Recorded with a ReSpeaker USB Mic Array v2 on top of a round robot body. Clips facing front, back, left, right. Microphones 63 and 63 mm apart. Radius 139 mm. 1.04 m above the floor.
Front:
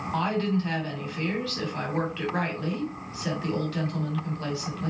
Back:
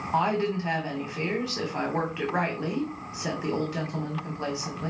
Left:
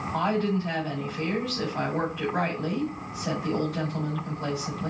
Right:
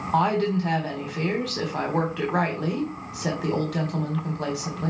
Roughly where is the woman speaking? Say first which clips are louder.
Back 2 dB, right 4 dB; right.